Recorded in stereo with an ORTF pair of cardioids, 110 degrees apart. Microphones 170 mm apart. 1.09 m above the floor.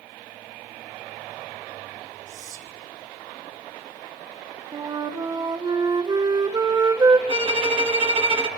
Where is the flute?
25° right, 0.8 m.